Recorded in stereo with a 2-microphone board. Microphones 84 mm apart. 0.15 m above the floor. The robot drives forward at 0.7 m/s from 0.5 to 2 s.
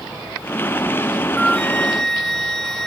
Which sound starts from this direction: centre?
A flute, at 1.4 s.